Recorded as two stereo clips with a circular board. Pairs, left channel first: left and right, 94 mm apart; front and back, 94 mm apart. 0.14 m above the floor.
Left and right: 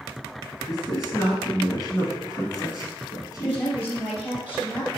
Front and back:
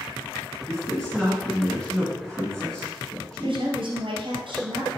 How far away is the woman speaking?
About 2.5 m.